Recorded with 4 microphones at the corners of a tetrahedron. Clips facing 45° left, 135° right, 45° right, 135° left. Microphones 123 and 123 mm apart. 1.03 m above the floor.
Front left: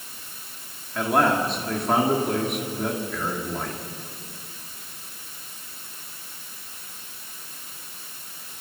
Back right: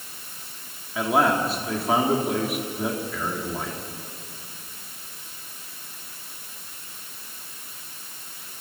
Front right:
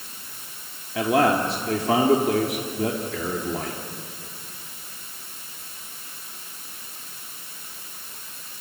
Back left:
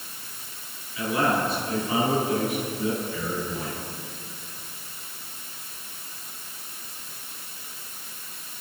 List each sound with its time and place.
0.9 s a man speaking: 50° right, 2.5 m